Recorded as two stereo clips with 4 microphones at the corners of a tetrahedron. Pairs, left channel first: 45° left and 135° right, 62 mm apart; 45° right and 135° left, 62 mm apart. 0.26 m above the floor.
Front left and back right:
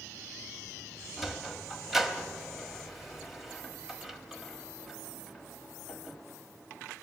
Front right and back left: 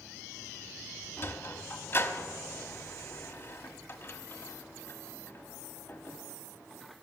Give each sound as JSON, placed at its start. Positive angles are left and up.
{"t": 1.2, "sound": "a sliding door", "azimuth_deg": -50, "distance_m": 1.0}